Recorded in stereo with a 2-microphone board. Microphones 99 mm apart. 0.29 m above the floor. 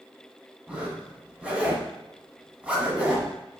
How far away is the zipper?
About 1.2 m.